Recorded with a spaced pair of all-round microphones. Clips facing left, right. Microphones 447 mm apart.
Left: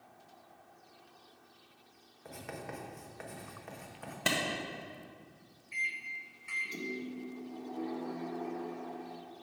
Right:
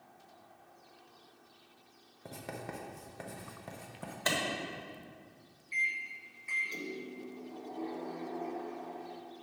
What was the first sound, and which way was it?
Writing, 55° right (ahead or behind).